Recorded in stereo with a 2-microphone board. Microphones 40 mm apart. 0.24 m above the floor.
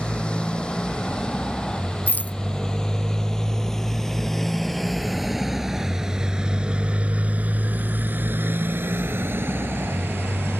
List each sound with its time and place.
0.0 s a motorcycle: 25° left (ahead or behind); by 10.6 s 75° right (ahead or behind)
2.1 s a rattle: 50° left (ahead or behind)